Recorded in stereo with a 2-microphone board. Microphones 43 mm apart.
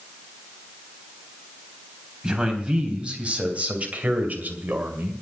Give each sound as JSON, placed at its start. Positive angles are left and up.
{"t": 2.2, "sound": "a man speaking", "side_deg": -25, "distance_m": 3.5}